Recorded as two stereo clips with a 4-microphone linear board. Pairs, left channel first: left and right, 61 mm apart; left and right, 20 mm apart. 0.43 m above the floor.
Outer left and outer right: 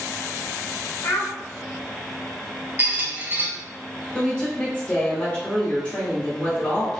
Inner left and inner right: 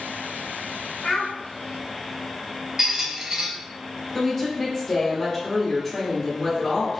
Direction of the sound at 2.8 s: 30° right (ahead or behind).